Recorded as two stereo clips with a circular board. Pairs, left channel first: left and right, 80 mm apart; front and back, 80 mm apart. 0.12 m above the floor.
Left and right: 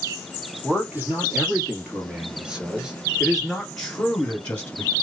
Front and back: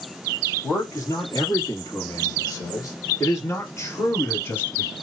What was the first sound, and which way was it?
A man speaking, 30° right.